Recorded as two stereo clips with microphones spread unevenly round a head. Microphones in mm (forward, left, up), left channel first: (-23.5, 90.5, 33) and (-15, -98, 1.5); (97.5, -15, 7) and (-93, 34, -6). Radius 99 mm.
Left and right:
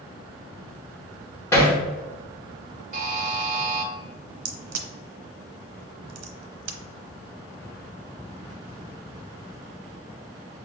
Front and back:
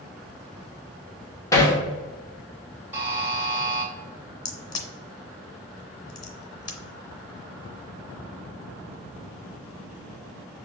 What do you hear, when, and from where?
1.5 s hammering: 40° left, 0.7 m
2.9 s a buzzer: 120° right, 0.8 m
4.5 s a crack: 85° right, 0.7 m